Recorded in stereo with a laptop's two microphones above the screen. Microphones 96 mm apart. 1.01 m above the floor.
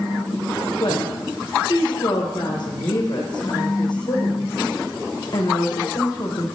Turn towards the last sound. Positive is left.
turn(degrees=55)  # may be behind; listen again after turning